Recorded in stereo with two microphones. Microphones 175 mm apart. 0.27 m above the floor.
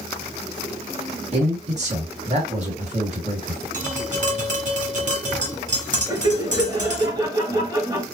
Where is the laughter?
20° right (ahead or behind), 1.0 m.